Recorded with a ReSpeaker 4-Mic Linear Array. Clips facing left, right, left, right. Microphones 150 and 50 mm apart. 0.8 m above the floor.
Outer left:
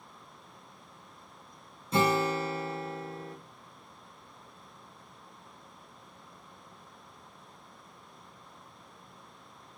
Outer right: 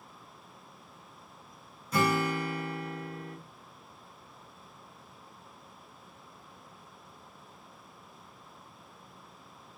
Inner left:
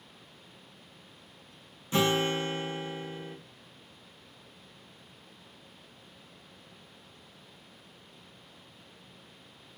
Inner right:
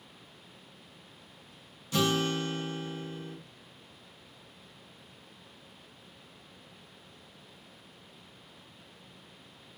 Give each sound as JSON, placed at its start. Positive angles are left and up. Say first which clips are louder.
{"t": 1.9, "sound": "a guitar", "louder": "outer left 2 dB, inner left 2 dB", "side_deg": 25, "distance_m": 0.5}